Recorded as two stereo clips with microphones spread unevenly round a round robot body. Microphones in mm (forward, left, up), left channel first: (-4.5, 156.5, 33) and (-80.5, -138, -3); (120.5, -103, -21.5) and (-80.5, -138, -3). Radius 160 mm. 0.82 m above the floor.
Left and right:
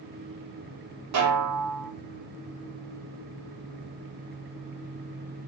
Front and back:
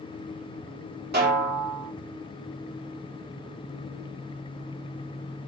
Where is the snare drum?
135° right, 1.4 m.